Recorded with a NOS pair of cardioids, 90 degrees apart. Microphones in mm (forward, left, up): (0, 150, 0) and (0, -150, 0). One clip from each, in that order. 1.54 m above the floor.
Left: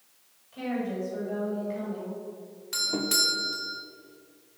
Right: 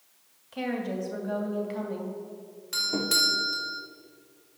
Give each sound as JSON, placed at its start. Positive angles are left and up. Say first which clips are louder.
{"t": 0.5, "sound": "a woman speaking", "louder": "right 1 dB", "azimuth_deg": -60, "distance_m": 2.5}
{"t": 2.7, "sound": "a doorbell", "louder": "right 1 dB", "azimuth_deg": 0, "distance_m": 1.0}